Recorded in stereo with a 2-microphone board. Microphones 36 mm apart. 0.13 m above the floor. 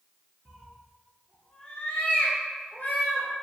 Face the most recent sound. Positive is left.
turn(degrees=70)  # may be behind; listen again after turning